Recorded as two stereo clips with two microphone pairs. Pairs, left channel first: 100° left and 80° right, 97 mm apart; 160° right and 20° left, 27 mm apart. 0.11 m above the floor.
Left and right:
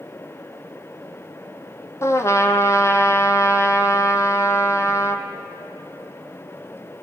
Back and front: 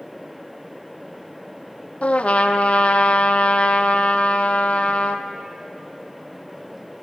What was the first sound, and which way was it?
A trumpet, 160° left.